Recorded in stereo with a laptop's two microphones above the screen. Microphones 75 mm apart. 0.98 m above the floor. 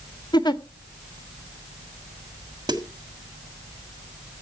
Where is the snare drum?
65° right (ahead or behind), 1.6 m.